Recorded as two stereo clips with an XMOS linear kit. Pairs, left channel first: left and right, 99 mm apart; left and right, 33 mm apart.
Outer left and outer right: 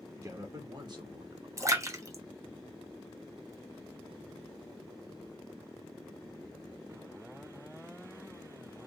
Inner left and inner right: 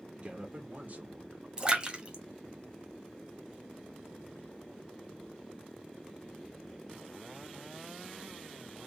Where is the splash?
30° right (ahead or behind), 0.9 m.